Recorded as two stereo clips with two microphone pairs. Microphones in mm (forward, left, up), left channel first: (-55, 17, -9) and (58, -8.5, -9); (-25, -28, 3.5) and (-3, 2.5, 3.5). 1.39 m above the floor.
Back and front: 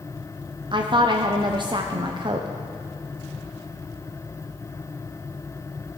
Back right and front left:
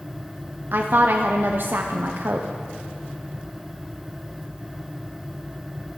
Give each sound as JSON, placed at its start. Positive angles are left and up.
{"t": 0.7, "sound": "a woman speaking", "azimuth_deg": 30, "distance_m": 0.5}